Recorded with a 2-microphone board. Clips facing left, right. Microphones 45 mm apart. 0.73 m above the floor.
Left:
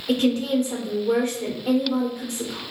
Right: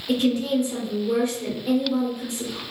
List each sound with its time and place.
0.1 s a woman speaking: 60° left (ahead or behind), 2.5 m